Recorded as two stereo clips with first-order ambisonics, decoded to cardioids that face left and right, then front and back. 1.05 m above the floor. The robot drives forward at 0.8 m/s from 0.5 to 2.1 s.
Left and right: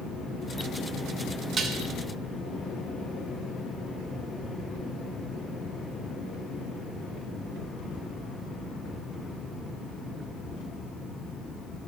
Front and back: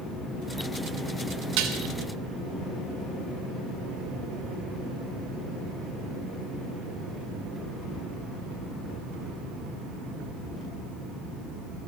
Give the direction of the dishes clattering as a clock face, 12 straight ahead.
5 o'clock.